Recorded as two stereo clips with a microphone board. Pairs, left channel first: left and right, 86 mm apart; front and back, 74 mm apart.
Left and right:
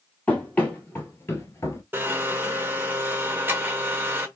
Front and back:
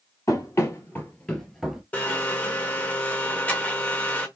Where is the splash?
I don't hear a splash.